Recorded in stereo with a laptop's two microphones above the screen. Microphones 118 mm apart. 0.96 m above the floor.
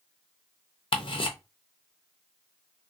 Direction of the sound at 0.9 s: 50° left (ahead or behind).